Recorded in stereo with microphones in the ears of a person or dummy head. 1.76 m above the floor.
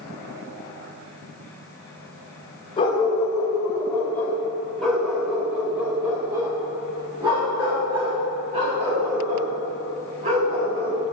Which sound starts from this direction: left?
A dog barking, at 2.8 s.